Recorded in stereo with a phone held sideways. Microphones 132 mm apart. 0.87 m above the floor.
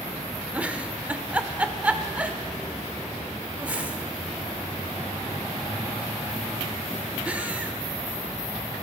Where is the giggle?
10° right (ahead or behind), 0.7 m.